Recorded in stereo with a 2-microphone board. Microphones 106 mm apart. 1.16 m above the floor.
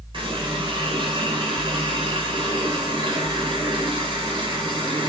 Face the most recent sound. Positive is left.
turn(degrees=-50)  # may be behind; listen again after turning